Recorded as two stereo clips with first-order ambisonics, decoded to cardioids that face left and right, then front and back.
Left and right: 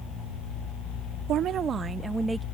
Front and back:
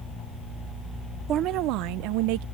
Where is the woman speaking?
130° right; by 2.5 s 175° right.